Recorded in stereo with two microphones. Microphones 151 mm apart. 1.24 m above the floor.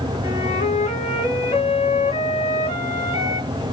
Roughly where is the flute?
Left.